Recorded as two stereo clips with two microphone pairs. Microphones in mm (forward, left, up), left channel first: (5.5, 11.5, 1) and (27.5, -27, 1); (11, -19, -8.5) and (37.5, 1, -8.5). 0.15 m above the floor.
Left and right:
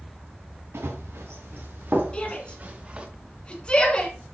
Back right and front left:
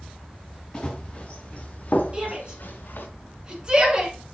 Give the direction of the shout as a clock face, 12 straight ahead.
10 o'clock.